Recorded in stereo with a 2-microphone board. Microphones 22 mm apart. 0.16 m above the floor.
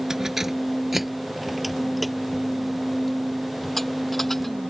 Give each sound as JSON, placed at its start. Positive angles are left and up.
{"t": 0.1, "sound": "keys jangling", "side_deg": -20}